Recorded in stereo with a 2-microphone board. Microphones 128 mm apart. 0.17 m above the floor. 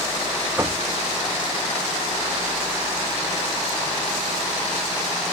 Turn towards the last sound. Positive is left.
turn(degrees=-20)  # may be behind; listen again after turning